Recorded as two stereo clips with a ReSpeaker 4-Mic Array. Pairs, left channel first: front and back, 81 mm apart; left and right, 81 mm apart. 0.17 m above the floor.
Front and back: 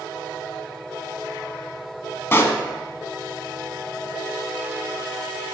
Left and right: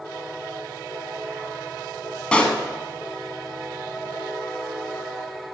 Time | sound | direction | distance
2.3 | a pop | 25° left | 0.7 m